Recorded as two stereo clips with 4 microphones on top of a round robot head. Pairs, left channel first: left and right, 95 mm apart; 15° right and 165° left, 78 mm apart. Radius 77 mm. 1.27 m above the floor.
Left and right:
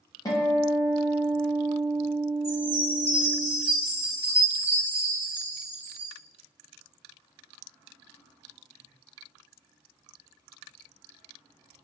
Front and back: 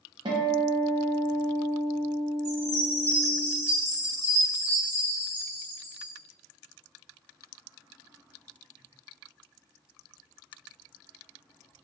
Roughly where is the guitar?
Behind left.